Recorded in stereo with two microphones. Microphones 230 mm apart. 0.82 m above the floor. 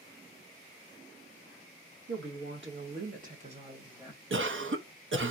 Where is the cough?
60° right (ahead or behind), 0.6 m.